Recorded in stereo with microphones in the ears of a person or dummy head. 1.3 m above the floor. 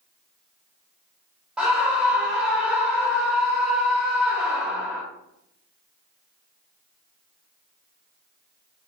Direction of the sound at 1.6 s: 5° right (ahead or behind).